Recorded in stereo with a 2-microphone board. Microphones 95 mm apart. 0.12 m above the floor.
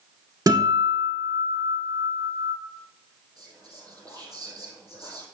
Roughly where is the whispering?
Right.